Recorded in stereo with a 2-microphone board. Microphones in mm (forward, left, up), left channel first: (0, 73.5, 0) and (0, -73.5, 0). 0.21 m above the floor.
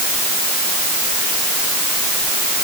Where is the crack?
I don't hear a crack.